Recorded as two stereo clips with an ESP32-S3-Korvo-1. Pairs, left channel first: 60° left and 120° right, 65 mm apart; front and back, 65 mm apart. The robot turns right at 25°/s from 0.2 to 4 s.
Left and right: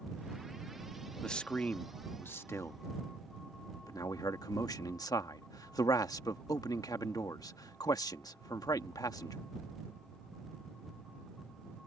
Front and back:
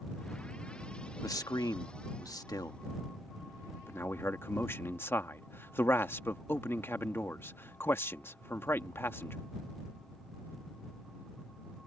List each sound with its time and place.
1.2 s a man speaking: 20° right; by 9.4 s 50° left